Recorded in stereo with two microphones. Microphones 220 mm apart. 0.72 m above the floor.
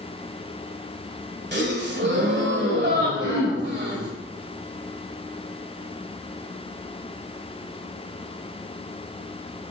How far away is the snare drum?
No snare drum in this recording.